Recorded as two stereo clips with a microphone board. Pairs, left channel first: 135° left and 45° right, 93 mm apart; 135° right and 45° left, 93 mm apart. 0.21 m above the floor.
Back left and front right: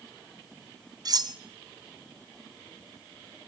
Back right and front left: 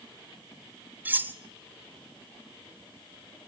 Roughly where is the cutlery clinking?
Ahead.